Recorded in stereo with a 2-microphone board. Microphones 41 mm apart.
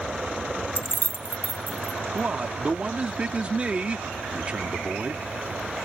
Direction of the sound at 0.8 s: 50° left (ahead or behind).